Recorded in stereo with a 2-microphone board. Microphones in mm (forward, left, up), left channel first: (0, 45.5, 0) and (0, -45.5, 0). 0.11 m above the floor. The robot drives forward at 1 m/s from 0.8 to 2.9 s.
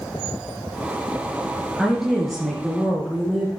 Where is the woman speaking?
Centre (ahead or behind), 1.6 m.